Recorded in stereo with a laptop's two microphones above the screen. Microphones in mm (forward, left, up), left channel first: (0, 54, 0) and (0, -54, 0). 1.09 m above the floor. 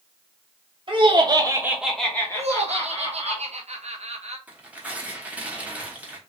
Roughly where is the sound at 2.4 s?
Right.